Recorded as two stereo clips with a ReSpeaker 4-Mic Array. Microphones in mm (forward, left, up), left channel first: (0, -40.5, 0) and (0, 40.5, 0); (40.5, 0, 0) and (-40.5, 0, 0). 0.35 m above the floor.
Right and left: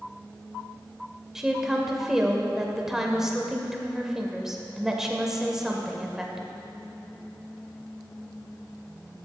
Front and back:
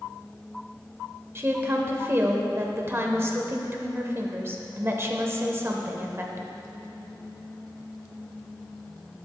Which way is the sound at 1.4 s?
170° left.